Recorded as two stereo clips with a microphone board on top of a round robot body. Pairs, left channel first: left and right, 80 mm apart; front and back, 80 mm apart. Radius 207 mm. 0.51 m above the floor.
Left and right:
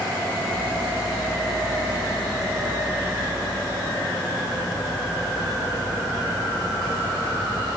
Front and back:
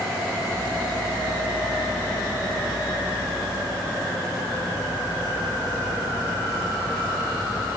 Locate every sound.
Only background noise.